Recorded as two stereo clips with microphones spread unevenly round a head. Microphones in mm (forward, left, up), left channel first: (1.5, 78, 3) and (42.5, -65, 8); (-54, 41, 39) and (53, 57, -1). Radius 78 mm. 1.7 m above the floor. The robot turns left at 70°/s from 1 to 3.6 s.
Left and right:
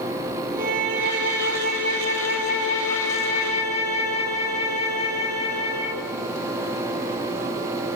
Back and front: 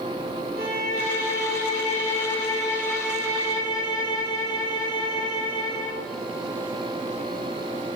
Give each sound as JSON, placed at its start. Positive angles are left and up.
{"t": 0.6, "sound": "a violin", "azimuth_deg": -120, "distance_m": 6.0}